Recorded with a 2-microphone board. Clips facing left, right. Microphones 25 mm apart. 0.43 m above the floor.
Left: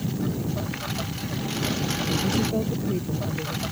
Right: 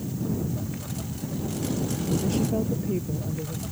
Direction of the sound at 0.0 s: 45° left (ahead or behind).